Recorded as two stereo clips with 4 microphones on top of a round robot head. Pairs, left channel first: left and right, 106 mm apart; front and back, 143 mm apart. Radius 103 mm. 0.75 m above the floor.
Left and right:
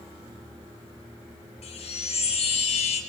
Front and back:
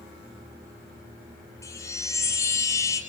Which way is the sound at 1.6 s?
70° left.